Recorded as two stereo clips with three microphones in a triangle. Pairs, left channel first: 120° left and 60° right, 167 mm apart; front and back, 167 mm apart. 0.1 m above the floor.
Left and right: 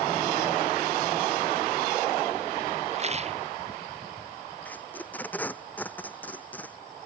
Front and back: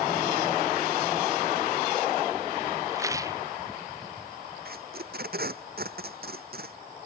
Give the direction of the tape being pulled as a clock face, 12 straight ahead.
5 o'clock.